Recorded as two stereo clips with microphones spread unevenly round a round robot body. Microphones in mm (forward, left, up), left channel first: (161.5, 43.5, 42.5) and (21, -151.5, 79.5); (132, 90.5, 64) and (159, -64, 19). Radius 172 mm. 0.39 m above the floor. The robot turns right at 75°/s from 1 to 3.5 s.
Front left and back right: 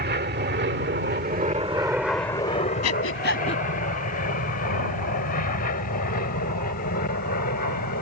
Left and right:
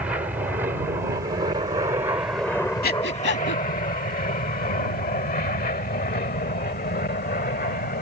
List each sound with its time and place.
0.0 s an aircraft: 130° right; by 8.0 s 95° left
2.8 s breathing: 75° left; by 3.6 s 125° left